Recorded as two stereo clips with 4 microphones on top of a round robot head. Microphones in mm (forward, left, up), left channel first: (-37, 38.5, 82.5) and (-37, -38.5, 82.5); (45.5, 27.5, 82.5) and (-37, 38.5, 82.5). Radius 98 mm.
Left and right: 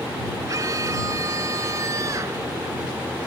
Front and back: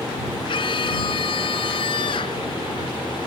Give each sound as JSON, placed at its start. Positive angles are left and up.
{"t": 0.5, "sound": "a scream", "azimuth_deg": -35}